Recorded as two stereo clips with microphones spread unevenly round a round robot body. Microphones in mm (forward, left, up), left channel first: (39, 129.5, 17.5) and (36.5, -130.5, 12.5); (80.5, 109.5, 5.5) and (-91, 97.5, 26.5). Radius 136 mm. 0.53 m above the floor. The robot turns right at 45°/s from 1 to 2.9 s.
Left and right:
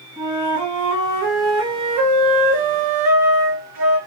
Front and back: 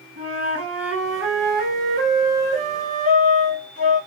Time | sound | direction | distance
0.2 | a flute | 160° right | 1.8 m